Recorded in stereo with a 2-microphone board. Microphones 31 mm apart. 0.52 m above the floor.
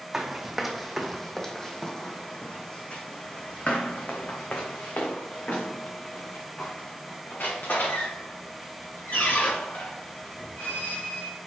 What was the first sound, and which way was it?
Running footsteps, 10° right (ahead or behind).